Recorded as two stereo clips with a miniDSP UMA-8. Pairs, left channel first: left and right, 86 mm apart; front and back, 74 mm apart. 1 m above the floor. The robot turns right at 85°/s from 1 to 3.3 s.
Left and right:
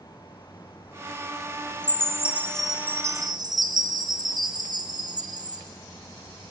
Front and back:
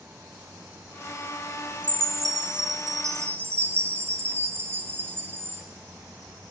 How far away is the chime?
About 0.7 m.